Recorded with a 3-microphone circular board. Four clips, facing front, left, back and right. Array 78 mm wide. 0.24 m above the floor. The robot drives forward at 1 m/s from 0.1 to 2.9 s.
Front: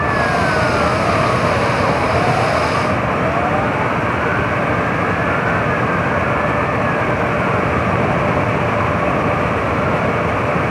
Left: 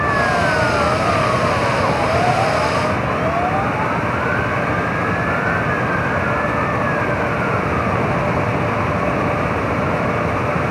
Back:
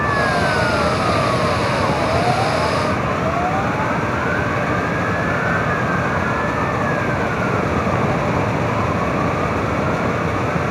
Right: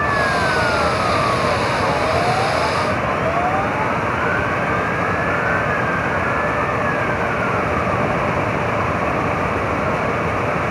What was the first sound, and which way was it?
Only background noise.